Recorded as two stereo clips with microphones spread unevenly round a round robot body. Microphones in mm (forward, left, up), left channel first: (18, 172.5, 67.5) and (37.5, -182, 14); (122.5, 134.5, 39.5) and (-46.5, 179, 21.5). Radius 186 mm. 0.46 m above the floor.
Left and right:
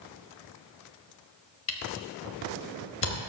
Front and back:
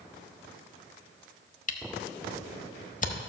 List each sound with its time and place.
1.7 s a camera shutter: 35° left, 1.1 m